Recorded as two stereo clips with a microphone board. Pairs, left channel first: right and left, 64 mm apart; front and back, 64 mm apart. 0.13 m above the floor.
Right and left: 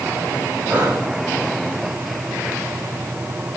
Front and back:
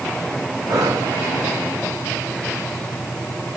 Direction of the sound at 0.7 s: 160° left.